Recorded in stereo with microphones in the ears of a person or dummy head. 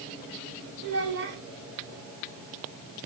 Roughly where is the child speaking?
Right.